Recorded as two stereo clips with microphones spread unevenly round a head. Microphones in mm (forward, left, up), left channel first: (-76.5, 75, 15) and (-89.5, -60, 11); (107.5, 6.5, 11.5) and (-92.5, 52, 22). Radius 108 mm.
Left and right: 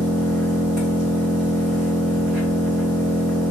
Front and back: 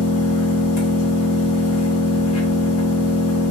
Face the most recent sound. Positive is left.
turn(degrees=-10)